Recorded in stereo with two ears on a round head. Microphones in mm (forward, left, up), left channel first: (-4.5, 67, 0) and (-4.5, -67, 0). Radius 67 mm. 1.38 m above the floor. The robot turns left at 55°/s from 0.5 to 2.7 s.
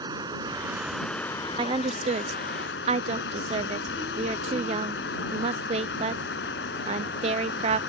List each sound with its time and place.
0.0 s running water: 155° right; by 7.9 s 85° left
1.6 s a woman speaking: 30° right (ahead or behind); by 7.8 s 40° right (ahead or behind)